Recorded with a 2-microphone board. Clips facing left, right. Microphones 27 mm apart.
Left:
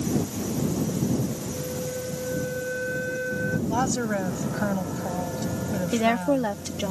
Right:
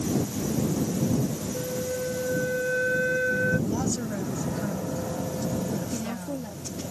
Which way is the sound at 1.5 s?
20° right (ahead or behind).